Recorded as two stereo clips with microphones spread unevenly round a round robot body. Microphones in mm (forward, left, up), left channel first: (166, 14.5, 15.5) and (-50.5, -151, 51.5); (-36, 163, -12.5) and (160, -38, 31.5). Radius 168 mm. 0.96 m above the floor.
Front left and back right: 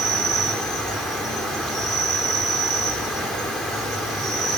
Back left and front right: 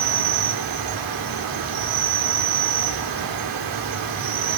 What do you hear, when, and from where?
0.0 s an insect: 50° right, 3 m